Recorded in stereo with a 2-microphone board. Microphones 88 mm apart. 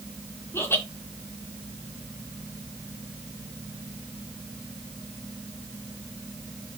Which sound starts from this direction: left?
Laughter, at 0.5 s.